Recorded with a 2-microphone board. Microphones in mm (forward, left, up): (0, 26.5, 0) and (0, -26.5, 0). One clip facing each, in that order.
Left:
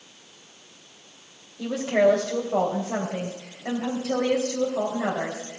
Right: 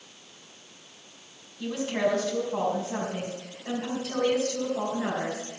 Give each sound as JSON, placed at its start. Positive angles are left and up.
{"t": 1.6, "sound": "a woman speaking", "side_deg": 75, "distance_m": 3.5}